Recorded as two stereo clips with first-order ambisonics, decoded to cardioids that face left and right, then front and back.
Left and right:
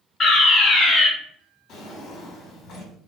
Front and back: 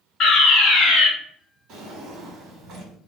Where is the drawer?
140° left, 1.2 m.